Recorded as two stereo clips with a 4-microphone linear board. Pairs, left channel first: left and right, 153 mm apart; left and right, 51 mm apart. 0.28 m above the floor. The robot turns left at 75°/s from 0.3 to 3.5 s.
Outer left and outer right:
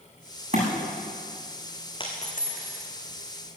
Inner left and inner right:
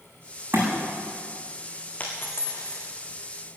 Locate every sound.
0.5 s a thud: 50° right (ahead or behind), 7.5 m; by 0.7 s 60° right (ahead or behind), 7.5 m
2.0 s a dropped coin: 30° left (ahead or behind), 3 m; by 2.9 s 85° left, 3 m